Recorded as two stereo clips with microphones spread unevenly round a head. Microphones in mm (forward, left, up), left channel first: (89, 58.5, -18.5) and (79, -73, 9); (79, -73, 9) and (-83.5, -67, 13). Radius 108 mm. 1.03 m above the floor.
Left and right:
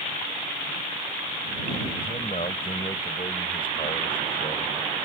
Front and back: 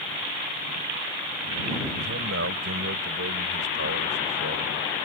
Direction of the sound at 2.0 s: 155° left.